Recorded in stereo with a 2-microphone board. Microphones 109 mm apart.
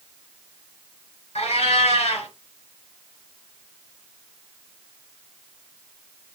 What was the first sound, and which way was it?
A cat meowing, 75° left (ahead or behind).